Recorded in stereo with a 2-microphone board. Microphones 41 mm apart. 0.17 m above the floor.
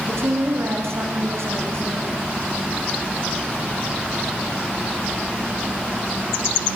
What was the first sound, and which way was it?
A woman speaking, 75° right (ahead or behind).